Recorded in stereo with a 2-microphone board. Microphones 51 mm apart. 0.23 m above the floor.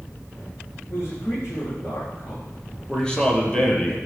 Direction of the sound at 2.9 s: 15° left (ahead or behind).